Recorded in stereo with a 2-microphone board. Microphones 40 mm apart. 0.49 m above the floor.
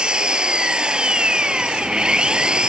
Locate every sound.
0.0 s an engine running: 25° right (ahead or behind)